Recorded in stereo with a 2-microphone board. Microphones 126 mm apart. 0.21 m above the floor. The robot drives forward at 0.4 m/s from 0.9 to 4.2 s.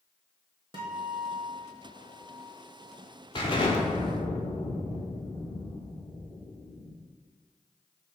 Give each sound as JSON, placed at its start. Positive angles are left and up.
{"t": 0.7, "sound": "a guitar", "side_deg": -40, "distance_m": 1.1}
{"t": 3.4, "sound": "an explosion", "side_deg": 40, "distance_m": 1.0}